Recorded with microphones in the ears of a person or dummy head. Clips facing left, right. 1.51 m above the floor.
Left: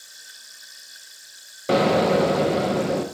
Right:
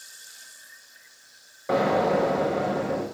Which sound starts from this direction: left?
An explosion, at 1.7 s.